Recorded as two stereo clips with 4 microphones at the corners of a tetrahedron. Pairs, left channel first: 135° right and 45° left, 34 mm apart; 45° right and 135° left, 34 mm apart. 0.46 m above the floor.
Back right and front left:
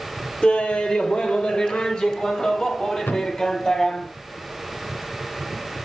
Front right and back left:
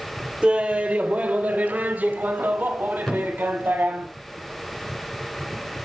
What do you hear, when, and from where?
0.4 s laughter: 175° right, 1.4 m; by 4.1 s 160° left, 3.5 m
3.1 s a thud: 120° right, 3 m